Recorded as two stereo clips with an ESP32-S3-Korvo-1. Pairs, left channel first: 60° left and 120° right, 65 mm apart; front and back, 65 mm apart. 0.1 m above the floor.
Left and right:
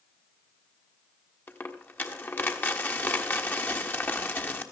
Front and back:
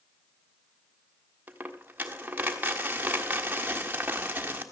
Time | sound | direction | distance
1.5 | a dropped coin | 120° left | 1.4 m